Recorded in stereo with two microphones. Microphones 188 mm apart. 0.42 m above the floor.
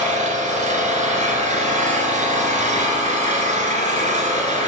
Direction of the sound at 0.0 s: 40° right (ahead or behind).